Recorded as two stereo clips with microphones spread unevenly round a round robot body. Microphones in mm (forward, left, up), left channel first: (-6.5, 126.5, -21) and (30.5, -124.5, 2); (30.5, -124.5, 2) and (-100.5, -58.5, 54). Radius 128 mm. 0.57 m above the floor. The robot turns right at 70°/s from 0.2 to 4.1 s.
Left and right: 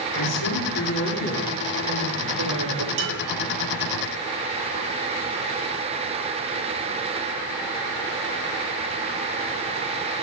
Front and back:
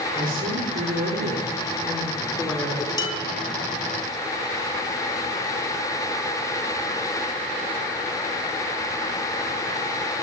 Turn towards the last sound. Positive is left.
turn(degrees=-10)